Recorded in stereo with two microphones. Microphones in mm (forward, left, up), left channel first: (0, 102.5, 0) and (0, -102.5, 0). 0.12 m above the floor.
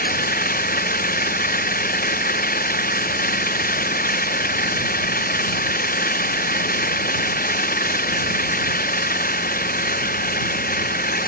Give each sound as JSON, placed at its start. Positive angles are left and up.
{"t": 0.0, "sound": "an engine running", "side_deg": 45}